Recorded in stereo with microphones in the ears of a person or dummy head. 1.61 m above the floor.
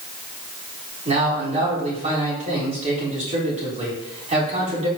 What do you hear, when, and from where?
1.1 s a man speaking: 40° right (ahead or behind), 3 m